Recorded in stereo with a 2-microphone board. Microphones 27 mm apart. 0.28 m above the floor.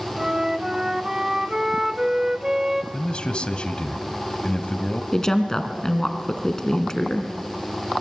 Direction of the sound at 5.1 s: 20° left (ahead or behind).